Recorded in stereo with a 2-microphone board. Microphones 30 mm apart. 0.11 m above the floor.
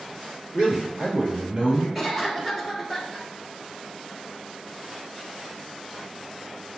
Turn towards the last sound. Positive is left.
turn(degrees=-10)  # may be behind; listen again after turning